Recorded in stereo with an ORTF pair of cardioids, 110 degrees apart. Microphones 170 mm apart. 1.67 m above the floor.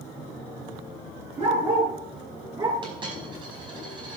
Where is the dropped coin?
30° right, 5 m.